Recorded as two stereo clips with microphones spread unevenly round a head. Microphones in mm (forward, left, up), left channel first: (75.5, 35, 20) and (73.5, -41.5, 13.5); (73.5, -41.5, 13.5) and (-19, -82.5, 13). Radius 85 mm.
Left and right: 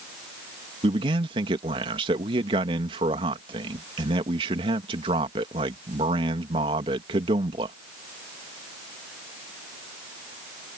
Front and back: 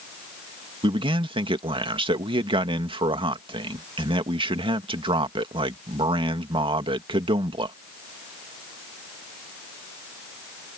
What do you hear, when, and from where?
0.8 s a man speaking: 120° right